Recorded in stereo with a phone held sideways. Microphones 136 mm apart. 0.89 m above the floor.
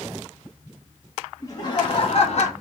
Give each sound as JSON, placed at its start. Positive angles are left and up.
{"t": 1.4, "sound": "laughter", "side_deg": 25, "distance_m": 1.2}